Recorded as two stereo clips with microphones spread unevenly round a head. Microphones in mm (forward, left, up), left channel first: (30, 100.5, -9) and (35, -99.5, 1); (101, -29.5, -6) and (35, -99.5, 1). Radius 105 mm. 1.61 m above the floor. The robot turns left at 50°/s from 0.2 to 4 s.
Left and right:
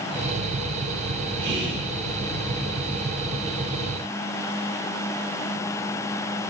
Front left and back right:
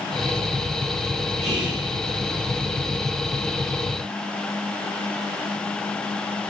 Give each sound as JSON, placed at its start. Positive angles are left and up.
{"t": 1.4, "sound": "whispering", "azimuth_deg": -120, "distance_m": 2.5}